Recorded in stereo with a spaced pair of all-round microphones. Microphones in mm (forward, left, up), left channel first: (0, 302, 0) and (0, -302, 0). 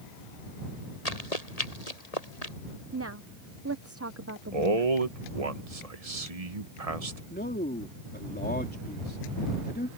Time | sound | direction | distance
1.1 | running footsteps | 85° left | ?
2.9 | a woman speaking | 25° right (ahead or behind) | ?
4.5 | a man speaking | 70° right (ahead or behind) | ?
7.3 | a man speaking | 15° left (ahead or behind) | ?